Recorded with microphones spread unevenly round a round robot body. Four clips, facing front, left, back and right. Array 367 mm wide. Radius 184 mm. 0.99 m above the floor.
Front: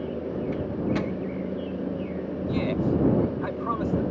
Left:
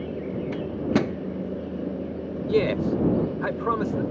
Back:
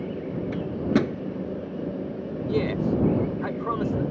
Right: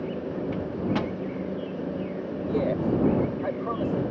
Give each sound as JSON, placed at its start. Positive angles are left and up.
{"t": 0.5, "sound": "a microwave", "azimuth_deg": 145}
{"t": 2.5, "sound": "a man speaking", "azimuth_deg": 95}